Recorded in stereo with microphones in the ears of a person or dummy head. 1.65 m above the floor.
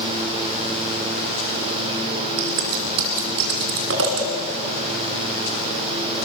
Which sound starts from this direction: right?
Scissors, at 2.4 s.